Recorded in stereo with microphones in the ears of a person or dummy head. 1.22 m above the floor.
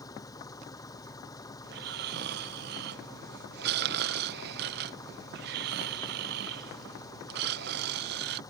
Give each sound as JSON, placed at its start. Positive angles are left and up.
{"t": 0.0, "sound": "an engine running", "side_deg": 20}
{"t": 1.6, "sound": "snoring", "side_deg": -55}